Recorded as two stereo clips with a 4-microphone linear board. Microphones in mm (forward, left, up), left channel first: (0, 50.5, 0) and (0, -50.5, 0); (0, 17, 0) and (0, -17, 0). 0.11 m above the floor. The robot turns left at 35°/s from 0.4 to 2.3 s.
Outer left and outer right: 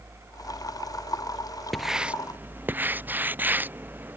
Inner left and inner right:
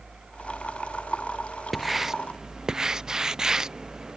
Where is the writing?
Centre (ahead or behind); by 4.2 s 20° right (ahead or behind).